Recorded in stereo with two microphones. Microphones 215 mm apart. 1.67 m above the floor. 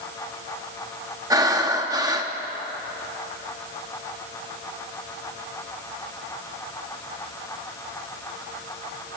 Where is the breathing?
15° right (ahead or behind), 1.1 m.